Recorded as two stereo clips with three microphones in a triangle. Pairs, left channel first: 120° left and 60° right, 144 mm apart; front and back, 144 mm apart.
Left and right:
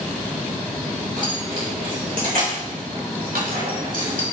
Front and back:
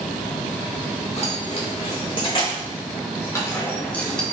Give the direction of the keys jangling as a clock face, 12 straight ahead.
1 o'clock.